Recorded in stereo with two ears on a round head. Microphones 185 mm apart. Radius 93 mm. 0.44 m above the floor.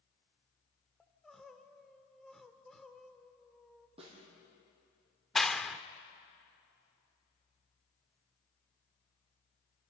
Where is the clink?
I don't hear a clink.